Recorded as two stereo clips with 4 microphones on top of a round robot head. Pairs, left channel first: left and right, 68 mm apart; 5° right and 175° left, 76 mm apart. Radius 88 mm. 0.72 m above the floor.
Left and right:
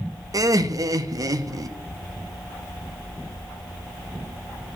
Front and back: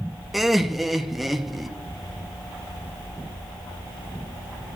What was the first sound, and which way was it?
Laughter, 95° right.